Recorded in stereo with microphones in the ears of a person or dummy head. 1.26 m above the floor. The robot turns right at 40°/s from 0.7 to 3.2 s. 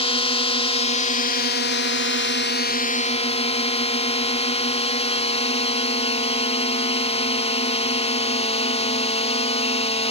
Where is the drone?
45° left; by 10.1 s 145° left.